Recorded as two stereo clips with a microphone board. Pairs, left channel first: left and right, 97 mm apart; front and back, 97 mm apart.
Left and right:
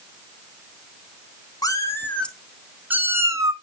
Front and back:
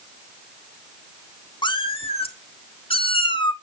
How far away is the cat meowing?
About 0.8 m.